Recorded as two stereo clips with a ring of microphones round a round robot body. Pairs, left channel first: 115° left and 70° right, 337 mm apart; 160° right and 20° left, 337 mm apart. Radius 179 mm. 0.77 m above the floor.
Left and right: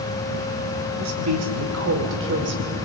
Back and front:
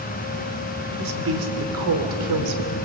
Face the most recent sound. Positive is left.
turn(degrees=-10)